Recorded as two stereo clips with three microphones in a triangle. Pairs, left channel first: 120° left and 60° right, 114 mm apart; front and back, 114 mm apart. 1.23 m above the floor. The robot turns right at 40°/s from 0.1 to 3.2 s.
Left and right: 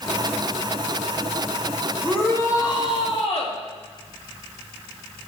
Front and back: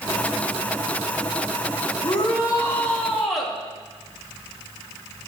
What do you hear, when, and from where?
2.0 s a shout: 40° left, 2.5 m; by 3.6 s 90° left, 2.5 m